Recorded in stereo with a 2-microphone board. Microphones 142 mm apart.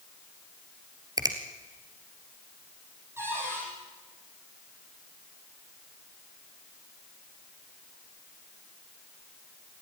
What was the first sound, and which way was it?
A finger snap, 30° right (ahead or behind).